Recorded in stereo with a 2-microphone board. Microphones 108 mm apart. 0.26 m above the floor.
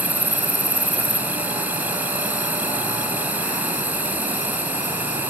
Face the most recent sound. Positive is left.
turn(degrees=-15)  # may be behind; listen again after turning